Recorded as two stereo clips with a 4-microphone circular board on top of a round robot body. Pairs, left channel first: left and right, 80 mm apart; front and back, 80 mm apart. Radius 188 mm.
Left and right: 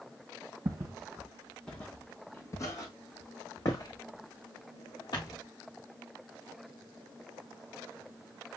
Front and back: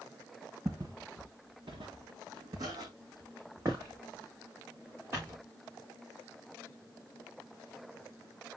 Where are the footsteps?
130° right, 0.8 m; by 5.4 s 115° left, 3 m.